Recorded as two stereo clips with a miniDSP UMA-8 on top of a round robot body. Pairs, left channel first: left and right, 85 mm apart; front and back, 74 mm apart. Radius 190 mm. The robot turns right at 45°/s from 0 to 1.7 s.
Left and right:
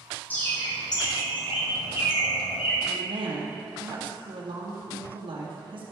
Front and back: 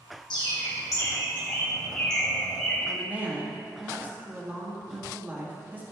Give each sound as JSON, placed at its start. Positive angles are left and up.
{"t": 0.3, "sound": "a bird", "azimuth_deg": 20, "distance_m": 1.6}
{"t": 2.9, "sound": "a woman speaking", "azimuth_deg": -110, "distance_m": 2.0}